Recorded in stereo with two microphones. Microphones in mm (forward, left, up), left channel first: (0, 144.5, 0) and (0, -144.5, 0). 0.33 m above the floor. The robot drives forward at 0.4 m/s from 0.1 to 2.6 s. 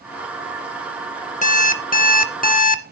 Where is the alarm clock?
25° left (ahead or behind), 0.6 m; by 2.9 s 30° left (ahead or behind), 0.6 m.